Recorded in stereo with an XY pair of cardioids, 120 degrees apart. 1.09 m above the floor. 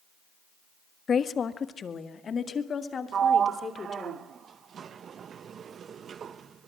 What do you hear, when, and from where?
1.1 s a woman speaking: 40° left, 1.2 m; by 4.1 s 35° left, 3 m
3.1 s a sliding door: 45° right, 0.8 m